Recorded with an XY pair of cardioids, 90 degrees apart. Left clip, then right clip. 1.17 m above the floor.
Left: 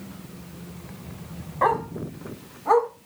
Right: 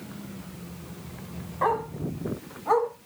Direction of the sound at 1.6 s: 35° left.